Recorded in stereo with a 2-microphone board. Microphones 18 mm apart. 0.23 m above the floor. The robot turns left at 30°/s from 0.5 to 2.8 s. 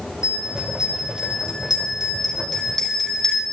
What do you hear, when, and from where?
0.2 s a bell: 40° right (ahead or behind), 3.5 m; by 3.4 s 25° left (ahead or behind), 3.5 m